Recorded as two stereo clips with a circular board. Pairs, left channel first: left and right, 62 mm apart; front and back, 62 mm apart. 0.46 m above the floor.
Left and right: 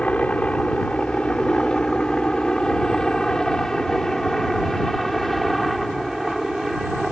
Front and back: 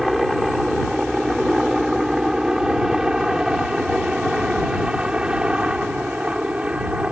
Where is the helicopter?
100° left; by 7.1 s 170° right.